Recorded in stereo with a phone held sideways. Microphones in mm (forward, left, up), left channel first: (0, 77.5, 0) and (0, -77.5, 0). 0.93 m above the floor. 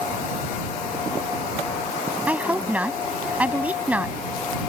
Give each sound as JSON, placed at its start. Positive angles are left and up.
{"t": 2.3, "sound": "a woman speaking", "side_deg": -10}